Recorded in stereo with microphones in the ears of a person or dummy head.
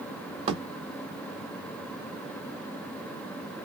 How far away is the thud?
About 1.1 m.